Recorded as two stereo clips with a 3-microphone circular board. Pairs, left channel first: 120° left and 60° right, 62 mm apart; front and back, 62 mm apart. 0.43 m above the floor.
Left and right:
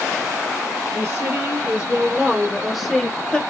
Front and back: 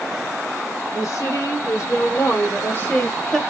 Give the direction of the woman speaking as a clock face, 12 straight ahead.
12 o'clock.